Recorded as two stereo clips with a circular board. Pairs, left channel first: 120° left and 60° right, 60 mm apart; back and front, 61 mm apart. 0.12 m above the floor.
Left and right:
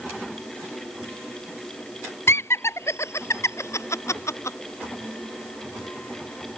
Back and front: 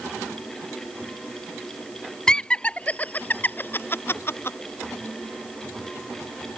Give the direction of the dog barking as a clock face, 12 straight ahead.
I don't hear a dog barking.